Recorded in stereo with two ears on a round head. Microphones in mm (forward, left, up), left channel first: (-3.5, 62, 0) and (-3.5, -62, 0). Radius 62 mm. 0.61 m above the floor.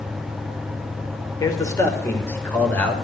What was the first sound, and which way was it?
A man speaking, 25° left (ahead or behind).